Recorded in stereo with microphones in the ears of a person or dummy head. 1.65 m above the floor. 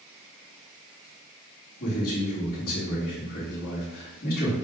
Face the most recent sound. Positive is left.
turn(degrees=50)  # may be behind; listen again after turning